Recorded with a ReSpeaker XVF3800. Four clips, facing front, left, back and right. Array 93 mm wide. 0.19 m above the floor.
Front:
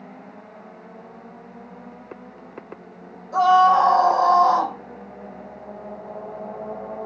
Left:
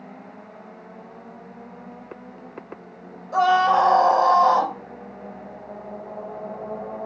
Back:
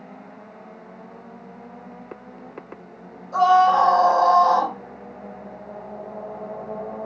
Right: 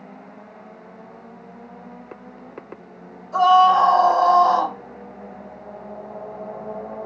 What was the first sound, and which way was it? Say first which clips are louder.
A scream: right 4 dB, front 1 dB; 95° left.